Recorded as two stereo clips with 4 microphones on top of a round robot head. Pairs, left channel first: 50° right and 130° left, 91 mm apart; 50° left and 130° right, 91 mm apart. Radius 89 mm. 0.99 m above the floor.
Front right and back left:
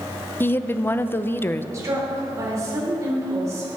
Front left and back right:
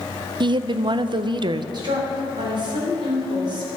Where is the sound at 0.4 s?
110° right, 0.5 m.